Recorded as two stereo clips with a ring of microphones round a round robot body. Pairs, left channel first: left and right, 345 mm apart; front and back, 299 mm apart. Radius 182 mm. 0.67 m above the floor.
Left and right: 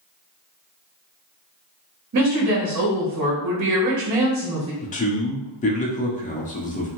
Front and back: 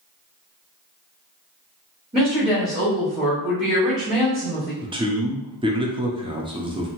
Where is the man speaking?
125° left, 0.7 m.